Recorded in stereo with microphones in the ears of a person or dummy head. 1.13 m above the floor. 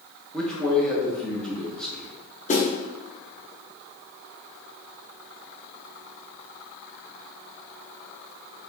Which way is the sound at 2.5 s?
35° left (ahead or behind).